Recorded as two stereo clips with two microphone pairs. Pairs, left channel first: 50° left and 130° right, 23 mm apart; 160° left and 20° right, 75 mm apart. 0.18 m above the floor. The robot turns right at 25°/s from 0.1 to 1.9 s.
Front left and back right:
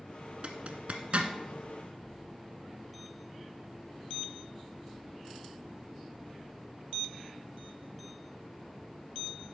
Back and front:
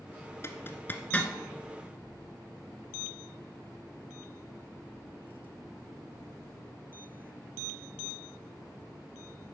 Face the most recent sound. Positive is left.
turn(degrees=-120)